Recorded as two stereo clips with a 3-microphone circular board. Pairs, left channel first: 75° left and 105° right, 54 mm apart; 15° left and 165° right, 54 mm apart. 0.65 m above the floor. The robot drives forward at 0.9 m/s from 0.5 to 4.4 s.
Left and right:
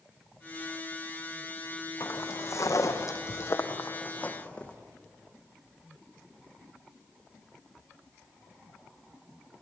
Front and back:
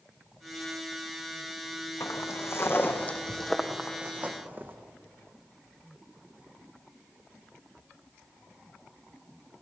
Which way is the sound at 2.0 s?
40° left.